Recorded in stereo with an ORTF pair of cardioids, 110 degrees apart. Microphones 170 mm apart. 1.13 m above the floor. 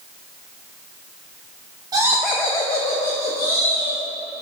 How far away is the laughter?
About 0.9 m.